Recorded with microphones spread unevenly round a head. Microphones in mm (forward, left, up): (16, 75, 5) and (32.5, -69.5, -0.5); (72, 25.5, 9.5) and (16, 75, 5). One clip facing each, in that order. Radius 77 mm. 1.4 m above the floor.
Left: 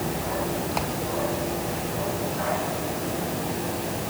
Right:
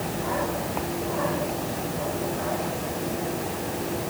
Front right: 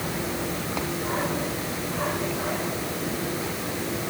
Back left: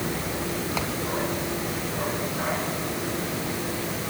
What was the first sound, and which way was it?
Only background noise.